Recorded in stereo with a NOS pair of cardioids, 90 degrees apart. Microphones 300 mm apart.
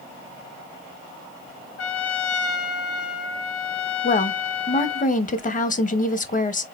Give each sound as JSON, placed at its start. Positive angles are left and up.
{"t": 1.8, "sound": "a trumpet", "azimuth_deg": 55, "distance_m": 0.9}
{"t": 4.0, "sound": "a woman speaking", "azimuth_deg": 25, "distance_m": 1.1}